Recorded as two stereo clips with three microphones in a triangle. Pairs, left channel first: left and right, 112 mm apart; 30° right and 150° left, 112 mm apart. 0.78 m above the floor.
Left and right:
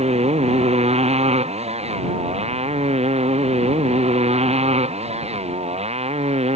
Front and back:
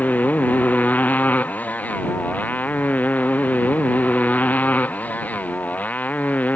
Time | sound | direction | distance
0.0 | a motorcycle | 105° right | ?